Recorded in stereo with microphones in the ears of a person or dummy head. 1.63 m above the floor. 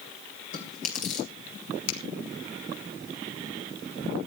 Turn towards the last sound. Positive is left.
turn(degrees=85)